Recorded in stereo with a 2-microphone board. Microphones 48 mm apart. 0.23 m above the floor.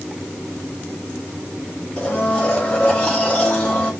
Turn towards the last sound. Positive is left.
turn(degrees=20)  # may be behind; listen again after turning